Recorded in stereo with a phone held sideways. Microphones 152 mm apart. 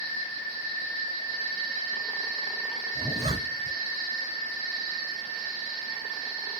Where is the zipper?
30° right (ahead or behind), 1.2 m.